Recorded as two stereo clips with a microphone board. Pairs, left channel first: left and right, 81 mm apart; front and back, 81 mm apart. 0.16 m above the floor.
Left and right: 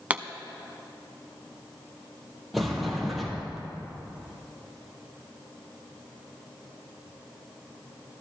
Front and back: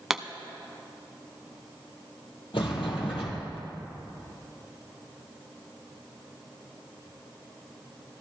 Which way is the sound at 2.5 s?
Straight ahead.